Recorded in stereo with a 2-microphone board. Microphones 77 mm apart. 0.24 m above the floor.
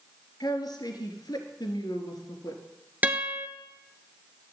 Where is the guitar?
20° right (ahead or behind), 1.4 m.